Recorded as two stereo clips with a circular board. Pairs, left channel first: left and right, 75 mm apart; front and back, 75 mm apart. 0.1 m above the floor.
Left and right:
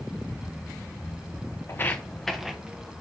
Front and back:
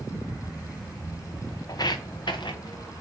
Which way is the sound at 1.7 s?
35° left.